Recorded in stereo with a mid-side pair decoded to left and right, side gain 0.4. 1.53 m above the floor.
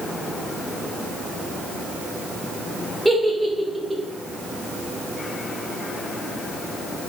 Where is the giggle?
15° right, 1.0 m.